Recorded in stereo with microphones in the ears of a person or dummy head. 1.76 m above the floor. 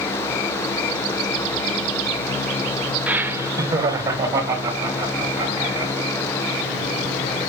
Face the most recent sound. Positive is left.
turn(degrees=-20)  # may be behind; listen again after turning